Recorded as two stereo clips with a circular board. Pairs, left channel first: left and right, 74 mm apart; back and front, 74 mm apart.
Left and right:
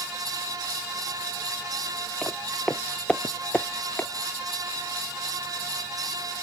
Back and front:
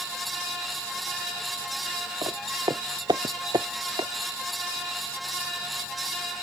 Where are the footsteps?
10° left; by 4.1 s 25° left.